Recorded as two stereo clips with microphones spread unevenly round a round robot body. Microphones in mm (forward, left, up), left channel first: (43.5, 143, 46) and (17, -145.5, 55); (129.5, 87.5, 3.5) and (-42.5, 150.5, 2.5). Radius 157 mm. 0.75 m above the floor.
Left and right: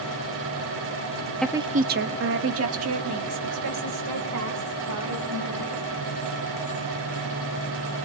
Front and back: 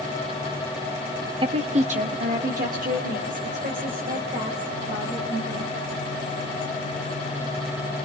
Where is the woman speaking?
165° left, 0.5 m; by 5.8 s 135° right, 4.5 m.